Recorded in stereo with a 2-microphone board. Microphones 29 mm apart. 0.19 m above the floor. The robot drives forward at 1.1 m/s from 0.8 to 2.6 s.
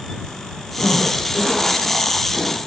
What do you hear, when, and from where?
0.8 s a zipper: 10° left (ahead or behind), 4 m; by 2.6 s 20° left (ahead or behind), 2 m